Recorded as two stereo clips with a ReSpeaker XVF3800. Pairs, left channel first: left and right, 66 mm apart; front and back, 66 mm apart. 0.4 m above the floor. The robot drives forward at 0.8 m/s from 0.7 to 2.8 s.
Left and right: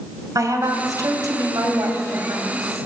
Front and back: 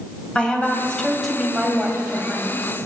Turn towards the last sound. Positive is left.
turn(degrees=-120)